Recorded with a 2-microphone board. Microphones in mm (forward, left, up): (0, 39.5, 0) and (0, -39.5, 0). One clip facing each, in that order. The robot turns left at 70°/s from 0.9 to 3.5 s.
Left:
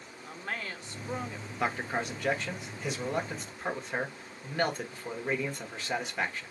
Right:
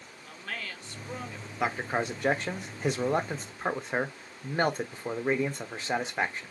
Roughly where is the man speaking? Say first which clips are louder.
Right 2 dB; ahead.